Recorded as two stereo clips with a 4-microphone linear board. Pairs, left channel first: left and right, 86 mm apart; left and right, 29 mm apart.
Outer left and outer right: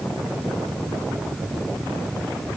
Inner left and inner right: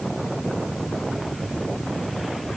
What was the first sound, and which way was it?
Only background noise.